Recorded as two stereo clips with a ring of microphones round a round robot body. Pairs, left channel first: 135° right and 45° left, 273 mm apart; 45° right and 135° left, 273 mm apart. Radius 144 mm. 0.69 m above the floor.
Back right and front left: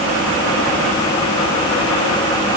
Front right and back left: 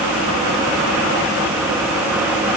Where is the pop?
No pop in this recording.